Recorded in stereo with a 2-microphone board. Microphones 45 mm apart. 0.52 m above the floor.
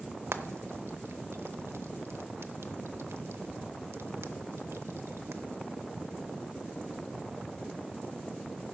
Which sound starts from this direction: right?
Frying, at 0.3 s.